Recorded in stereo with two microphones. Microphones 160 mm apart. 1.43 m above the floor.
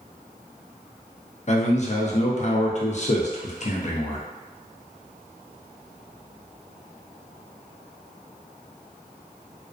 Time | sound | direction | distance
1.5 | a man speaking | 45° left (ahead or behind) | 0.5 m